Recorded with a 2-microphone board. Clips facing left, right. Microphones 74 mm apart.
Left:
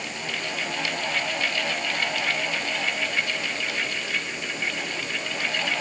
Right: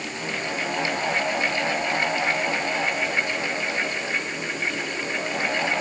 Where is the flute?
I don't hear a flute.